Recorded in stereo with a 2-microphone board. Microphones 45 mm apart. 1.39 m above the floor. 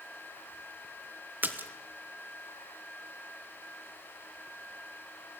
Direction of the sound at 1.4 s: 45° right (ahead or behind).